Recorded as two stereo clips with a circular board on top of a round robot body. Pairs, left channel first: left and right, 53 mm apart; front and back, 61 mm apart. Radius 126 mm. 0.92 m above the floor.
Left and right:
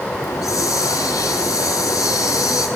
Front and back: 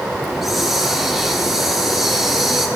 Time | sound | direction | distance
0.2 | a hiss | 95° left | 0.5 m